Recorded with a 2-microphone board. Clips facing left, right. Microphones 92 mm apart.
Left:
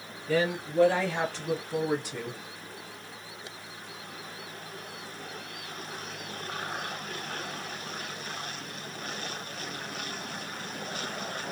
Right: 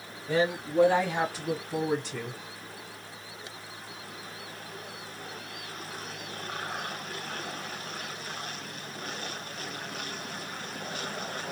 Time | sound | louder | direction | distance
0.3 | a woman speaking | even | 25° right (ahead or behind) | 1.9 m